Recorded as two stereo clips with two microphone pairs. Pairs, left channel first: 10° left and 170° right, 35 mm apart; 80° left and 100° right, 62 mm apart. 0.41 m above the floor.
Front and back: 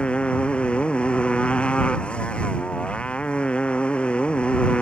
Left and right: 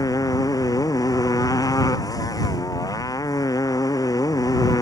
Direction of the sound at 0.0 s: 70° left.